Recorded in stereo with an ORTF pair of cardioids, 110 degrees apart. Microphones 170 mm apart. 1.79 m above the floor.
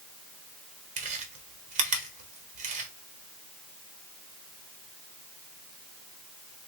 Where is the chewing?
45° right, 1.1 m.